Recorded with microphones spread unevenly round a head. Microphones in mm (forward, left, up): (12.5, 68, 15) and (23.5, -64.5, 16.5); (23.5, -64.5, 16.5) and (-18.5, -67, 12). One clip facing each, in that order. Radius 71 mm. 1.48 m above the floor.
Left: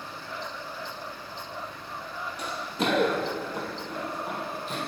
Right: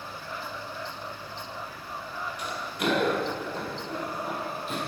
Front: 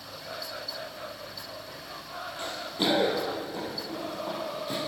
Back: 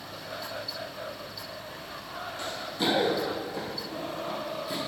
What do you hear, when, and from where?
2.4 s running footsteps: 55° left, 1.9 m; by 4.8 s straight ahead, 2.5 m